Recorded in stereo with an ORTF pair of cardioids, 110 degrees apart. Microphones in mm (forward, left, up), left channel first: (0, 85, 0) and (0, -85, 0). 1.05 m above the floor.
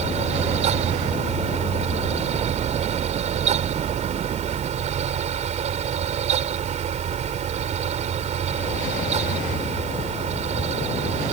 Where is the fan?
50° right.